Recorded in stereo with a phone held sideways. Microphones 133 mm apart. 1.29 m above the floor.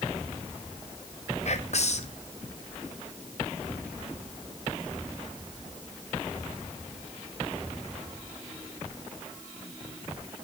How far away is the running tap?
I don't hear a running tap.